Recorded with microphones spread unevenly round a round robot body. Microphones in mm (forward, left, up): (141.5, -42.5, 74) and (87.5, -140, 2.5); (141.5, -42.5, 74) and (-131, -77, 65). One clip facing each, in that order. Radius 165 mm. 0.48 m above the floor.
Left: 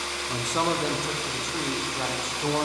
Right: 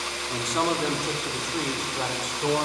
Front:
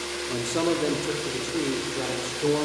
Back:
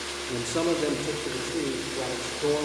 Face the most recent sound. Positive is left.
turn(degrees=-65)